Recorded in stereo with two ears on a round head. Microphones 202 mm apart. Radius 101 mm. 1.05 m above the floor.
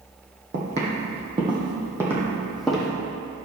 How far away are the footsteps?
About 2 m.